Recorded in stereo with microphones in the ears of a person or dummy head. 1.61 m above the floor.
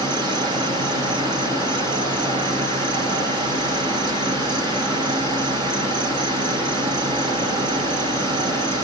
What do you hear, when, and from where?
0.0 s an insect: 25° right (ahead or behind), 1.9 m